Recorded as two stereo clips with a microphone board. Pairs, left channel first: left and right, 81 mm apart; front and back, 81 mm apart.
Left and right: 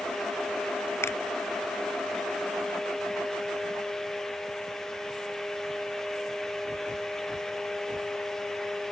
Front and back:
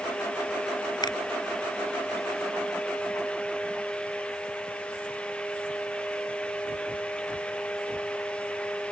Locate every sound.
1.0 s a finger snap: 30° left